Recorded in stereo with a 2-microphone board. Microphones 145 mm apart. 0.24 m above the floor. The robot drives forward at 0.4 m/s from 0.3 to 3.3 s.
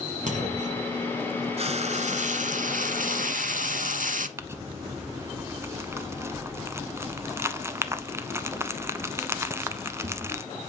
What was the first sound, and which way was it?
A clunk, 60° right (ahead or behind).